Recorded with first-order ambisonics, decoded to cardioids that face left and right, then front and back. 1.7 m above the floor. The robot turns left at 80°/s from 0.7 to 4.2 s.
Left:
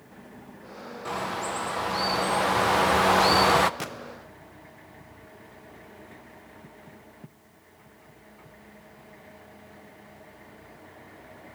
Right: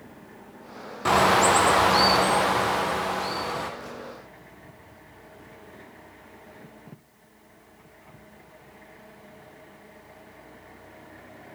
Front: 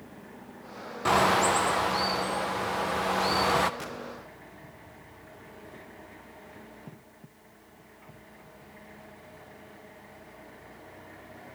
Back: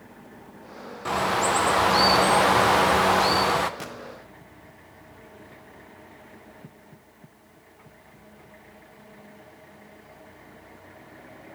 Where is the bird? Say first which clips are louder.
Right 12 dB, front 1 dB; 65° right, 0.8 m; by 3.7 s 85° left, 0.8 m.